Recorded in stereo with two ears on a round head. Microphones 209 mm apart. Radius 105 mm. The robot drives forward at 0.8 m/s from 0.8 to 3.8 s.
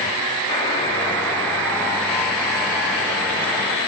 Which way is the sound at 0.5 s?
25° left (ahead or behind).